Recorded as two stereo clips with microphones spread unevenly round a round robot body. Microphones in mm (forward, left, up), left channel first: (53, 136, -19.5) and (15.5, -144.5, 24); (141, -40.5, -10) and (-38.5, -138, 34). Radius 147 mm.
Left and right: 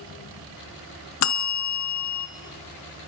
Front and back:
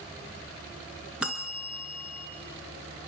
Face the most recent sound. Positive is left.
turn(degrees=120)